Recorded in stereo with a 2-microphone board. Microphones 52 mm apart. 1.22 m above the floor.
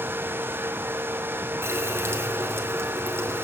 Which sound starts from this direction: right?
A running tap, at 1.6 s.